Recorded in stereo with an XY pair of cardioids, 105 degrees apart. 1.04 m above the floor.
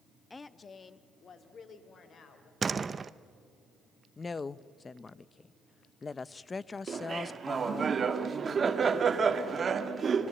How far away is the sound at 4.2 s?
About 0.7 m.